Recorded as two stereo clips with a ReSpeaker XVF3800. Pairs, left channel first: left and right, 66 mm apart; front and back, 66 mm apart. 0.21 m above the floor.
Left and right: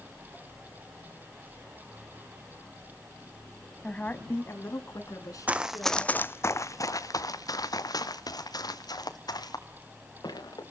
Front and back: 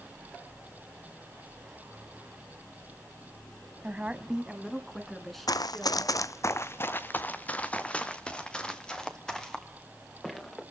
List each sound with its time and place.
3.8 s a woman speaking: 145° left, 1.4 m; by 6.2 s 80° left, 3.5 m
5.5 s running footsteps: 20° right, 0.7 m; by 10.6 s 85° left, 3.5 m